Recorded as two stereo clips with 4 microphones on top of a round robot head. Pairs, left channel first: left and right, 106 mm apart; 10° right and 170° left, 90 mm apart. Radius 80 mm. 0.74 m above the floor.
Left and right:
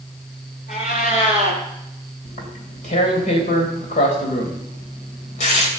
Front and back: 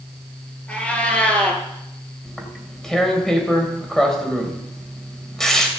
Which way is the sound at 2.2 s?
75° left.